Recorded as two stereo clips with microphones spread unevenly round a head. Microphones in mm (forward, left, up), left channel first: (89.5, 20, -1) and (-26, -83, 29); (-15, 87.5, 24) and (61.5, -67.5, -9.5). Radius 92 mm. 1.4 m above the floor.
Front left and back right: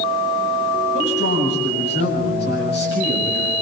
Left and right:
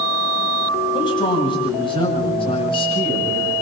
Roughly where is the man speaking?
Ahead left.